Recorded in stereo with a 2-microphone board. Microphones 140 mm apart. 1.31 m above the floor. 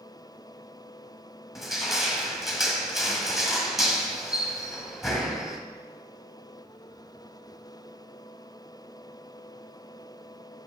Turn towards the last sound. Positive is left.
turn(degrees=0)  # may be behind; listen again after turning